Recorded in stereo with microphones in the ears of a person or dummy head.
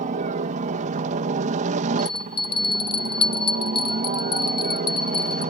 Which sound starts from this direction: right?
A helicopter, at 0.0 s.